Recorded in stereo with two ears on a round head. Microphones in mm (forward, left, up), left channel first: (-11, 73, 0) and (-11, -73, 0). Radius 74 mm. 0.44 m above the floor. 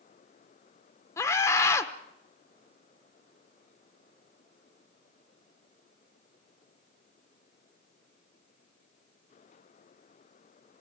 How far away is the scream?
About 0.8 m.